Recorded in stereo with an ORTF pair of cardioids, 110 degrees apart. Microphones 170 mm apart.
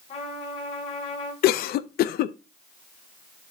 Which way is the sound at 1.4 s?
70° left.